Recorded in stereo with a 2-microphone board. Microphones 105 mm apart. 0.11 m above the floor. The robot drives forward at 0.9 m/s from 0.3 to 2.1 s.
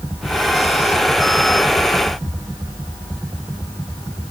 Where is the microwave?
I don't hear a microwave.